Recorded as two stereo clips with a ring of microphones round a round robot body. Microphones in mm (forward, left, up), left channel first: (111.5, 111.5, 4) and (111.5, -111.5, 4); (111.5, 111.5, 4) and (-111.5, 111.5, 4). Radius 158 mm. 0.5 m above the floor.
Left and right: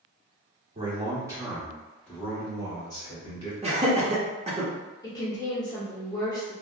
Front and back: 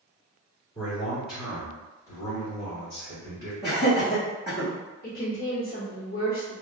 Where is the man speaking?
50° right, 1.2 m; by 3.5 s 25° left, 2 m.